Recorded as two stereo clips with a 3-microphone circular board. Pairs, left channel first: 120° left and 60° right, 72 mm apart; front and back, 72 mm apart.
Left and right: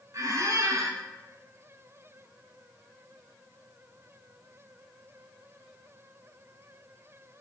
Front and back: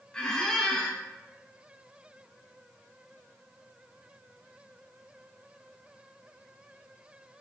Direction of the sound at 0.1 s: 80° right.